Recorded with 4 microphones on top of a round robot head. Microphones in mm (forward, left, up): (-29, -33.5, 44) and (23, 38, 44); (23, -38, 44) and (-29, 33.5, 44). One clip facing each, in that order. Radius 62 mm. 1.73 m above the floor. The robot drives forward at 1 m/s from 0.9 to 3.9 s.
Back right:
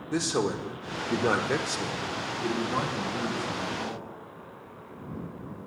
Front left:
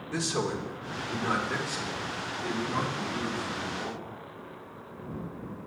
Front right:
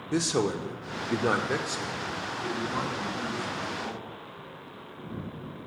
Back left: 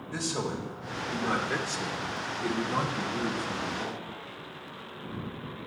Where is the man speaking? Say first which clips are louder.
Back right 3 dB, front right 6 dB; 65° right, 0.8 m; by 4.0 s 165° right, 3 m.